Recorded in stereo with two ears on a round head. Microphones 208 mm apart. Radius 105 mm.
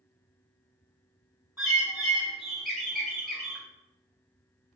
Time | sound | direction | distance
1.6 | a bird | centre (ahead or behind) | 0.9 m